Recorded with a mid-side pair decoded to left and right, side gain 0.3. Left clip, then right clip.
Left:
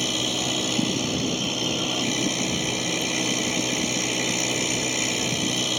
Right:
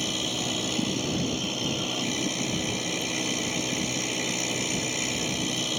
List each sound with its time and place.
0.0 s a machine running: 45° left